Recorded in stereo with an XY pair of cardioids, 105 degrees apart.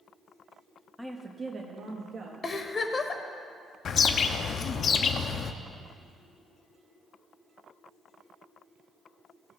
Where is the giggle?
35° left, 1.0 m.